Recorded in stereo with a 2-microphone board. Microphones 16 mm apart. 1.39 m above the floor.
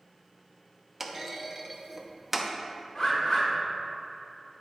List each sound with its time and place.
1.0 s a clunk: 10° right (ahead or behind), 0.6 m
3.0 s a bird: 35° left (ahead or behind), 1.8 m